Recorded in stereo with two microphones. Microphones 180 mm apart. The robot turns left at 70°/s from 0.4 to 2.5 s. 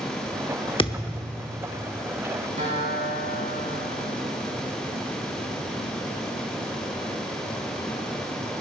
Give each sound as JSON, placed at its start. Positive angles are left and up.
{"t": 0.8, "sound": "a thud", "azimuth_deg": 30, "distance_m": 0.9}
{"t": 2.6, "sound": "a guitar", "side_deg": -45, "distance_m": 5.5}